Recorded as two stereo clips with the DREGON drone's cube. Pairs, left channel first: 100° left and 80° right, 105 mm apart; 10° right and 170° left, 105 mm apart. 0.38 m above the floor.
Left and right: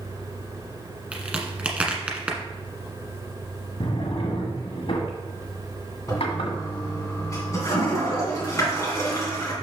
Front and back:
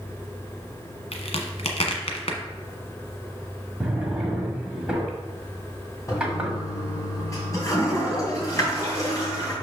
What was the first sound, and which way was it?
A crack, straight ahead.